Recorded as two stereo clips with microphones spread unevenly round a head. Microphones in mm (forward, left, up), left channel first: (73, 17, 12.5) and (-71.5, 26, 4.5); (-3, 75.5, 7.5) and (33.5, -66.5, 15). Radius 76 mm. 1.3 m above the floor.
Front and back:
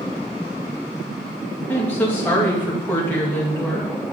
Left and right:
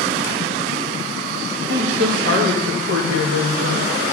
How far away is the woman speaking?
About 2 m.